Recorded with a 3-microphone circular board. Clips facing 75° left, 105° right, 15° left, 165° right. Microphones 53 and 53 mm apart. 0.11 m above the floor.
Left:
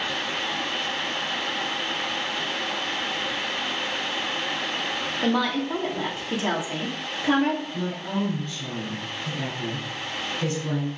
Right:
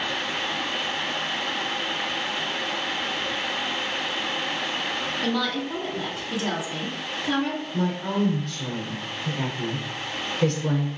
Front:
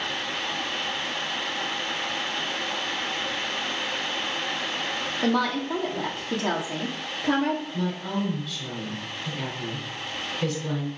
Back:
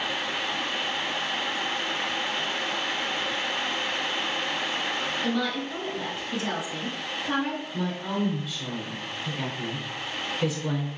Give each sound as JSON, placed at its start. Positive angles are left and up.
{"t": 5.2, "sound": "a woman speaking", "azimuth_deg": 20, "distance_m": 3.0}
{"t": 7.7, "sound": "a woman speaking", "azimuth_deg": -90, "distance_m": 3.0}